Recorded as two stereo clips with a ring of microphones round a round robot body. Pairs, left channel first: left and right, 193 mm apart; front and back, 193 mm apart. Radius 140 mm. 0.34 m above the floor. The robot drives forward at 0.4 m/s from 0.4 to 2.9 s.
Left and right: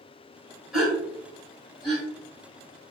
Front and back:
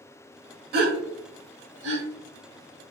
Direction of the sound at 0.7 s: Straight behind.